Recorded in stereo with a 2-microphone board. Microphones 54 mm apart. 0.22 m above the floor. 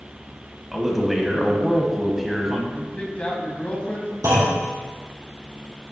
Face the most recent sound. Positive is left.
turn(degrees=-75)  # may be behind; listen again after turning